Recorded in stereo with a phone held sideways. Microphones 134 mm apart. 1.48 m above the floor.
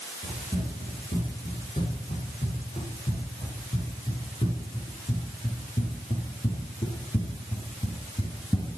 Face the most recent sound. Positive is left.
turn(degrees=25)  # may be behind; listen again after turning